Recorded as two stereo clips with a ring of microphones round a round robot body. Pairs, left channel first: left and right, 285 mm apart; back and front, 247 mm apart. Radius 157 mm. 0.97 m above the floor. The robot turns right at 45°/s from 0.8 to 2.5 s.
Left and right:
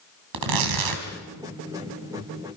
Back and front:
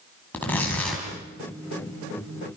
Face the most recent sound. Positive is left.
turn(degrees=-20)